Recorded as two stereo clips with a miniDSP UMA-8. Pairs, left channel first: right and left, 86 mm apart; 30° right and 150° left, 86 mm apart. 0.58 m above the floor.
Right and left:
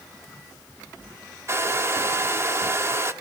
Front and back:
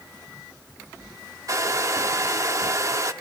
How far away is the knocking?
No knocking in this recording.